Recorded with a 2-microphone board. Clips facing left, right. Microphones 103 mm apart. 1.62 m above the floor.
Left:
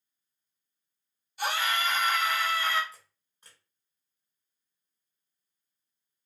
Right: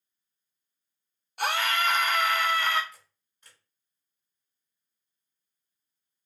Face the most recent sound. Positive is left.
turn(degrees=35)  # may be behind; listen again after turning